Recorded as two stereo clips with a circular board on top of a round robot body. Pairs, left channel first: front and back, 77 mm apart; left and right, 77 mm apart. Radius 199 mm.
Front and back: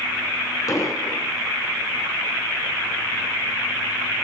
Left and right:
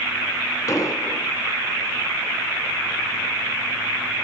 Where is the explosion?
45° left, 3.5 m.